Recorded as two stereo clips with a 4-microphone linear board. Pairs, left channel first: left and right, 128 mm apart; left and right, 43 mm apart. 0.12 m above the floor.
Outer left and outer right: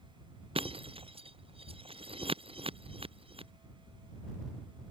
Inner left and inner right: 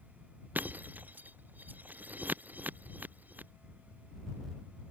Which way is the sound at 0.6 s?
50° right (ahead or behind).